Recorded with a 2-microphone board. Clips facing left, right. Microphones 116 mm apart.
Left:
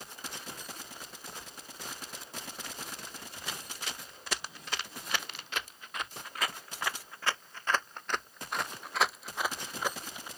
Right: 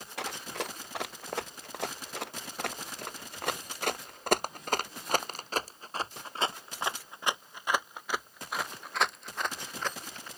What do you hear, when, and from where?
0.2 s running footsteps: 80° right; by 10.3 s 10° left (ahead or behind)